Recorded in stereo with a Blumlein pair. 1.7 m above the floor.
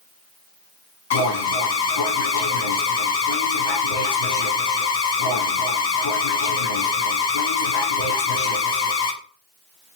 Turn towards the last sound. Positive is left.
turn(degrees=55)